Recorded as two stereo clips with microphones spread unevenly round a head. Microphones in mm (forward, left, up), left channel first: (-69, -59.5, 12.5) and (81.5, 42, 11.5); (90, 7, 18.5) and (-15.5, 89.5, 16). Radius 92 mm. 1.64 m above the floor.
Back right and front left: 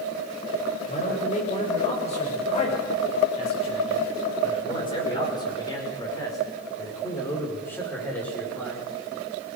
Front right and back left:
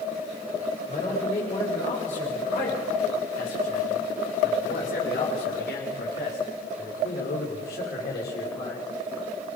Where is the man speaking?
95° right, 8 m; by 8.9 s 60° right, 5 m.